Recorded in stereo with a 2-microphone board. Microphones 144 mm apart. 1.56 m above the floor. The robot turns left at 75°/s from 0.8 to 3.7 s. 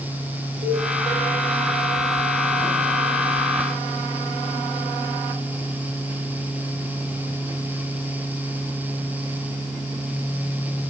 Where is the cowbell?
75° right (ahead or behind), 6 m.